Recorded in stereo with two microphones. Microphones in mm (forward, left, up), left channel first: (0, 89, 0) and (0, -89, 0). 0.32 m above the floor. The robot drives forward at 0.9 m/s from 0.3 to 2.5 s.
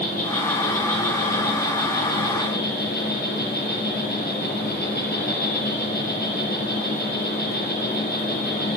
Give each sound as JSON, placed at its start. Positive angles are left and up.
{"t": 0.0, "sound": "an insect", "side_deg": 50, "distance_m": 7.0}